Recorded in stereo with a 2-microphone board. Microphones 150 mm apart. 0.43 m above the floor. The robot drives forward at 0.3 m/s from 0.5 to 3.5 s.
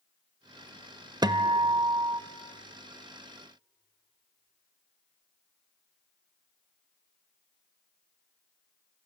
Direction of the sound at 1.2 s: 30° right (ahead or behind).